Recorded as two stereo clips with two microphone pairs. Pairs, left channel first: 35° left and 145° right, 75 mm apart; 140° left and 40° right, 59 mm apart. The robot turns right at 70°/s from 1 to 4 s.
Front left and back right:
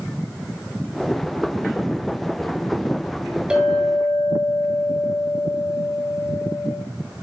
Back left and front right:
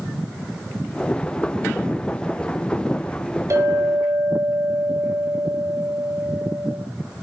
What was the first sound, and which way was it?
A clink, 70° right.